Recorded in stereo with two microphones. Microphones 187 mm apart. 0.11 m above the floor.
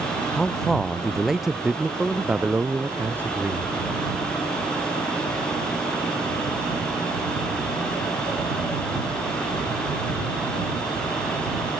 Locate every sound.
0.3 s a man speaking: 5° left (ahead or behind); by 3.8 s 15° right (ahead or behind)